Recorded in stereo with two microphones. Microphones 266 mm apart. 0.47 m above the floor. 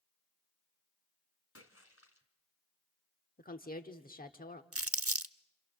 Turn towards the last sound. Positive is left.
turn(degrees=-60)  # may be behind; listen again after turning